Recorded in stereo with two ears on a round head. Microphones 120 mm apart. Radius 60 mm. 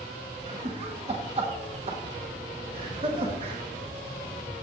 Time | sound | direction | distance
0.5 | laughter | 45° right (ahead or behind) | 1.0 m